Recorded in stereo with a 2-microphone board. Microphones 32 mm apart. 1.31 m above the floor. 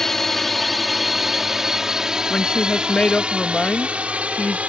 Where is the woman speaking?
30° left (ahead or behind).